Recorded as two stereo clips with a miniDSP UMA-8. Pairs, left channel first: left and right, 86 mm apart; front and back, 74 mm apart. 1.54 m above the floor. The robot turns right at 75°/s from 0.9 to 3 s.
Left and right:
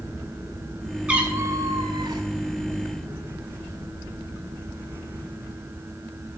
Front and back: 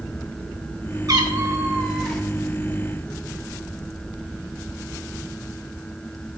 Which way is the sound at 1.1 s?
165° right.